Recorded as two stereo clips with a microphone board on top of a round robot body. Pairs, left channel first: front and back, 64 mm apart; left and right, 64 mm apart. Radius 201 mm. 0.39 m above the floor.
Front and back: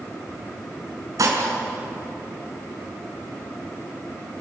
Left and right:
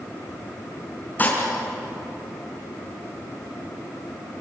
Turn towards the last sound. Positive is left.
turn(degrees=150)